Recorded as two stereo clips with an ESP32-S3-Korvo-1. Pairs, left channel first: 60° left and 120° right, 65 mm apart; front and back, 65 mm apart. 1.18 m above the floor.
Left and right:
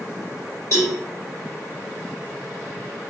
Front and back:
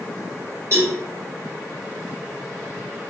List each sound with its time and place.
0.7 s a cowbell: 140° right, 1.4 m